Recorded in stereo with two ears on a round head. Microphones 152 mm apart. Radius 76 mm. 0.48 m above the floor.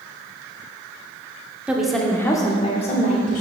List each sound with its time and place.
1.7 s a woman speaking: 10° right (ahead or behind), 0.8 m; by 3.4 s 50° left (ahead or behind), 1.0 m